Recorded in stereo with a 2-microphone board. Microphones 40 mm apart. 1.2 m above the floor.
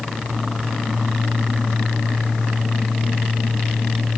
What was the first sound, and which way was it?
Only background noise.